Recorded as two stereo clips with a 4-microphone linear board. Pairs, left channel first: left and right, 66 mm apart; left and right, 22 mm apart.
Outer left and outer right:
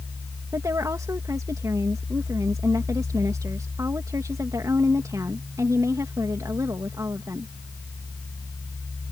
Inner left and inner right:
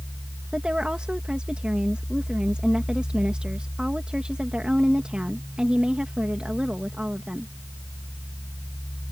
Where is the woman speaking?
55° right (ahead or behind).